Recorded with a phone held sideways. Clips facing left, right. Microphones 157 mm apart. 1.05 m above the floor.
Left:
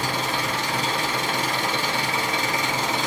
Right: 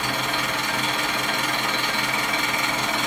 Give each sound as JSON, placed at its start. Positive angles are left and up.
{"t": 0.0, "sound": "an engine running", "side_deg": 35, "distance_m": 1.3}